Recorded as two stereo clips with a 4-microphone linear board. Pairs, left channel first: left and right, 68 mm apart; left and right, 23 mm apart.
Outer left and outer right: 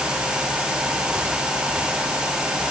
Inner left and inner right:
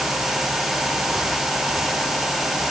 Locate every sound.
Only background noise.